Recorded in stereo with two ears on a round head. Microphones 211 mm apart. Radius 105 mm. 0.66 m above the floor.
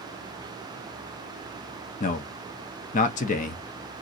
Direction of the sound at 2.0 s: 35° left (ahead or behind).